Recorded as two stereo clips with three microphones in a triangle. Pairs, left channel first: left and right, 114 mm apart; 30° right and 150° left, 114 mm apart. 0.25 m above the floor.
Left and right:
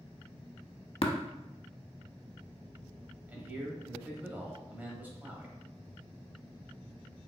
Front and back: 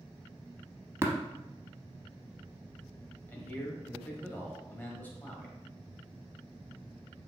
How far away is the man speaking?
About 0.9 m.